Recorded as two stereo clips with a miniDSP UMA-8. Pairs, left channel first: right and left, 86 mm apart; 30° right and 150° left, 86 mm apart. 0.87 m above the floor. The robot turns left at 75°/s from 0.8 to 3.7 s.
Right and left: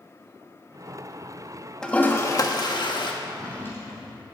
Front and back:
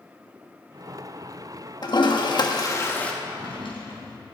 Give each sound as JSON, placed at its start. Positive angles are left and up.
{"t": 1.8, "sound": "a toilet flushing", "azimuth_deg": -10, "distance_m": 1.4}
{"t": 3.2, "sound": "a drawer", "azimuth_deg": 5, "distance_m": 3.5}